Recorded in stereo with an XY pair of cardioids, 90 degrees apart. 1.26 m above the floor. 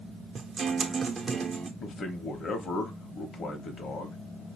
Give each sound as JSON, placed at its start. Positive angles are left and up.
{"t": 0.3, "sound": "a guitar", "azimuth_deg": -55, "distance_m": 0.9}
{"t": 1.8, "sound": "a man speaking", "azimuth_deg": 60, "distance_m": 1.1}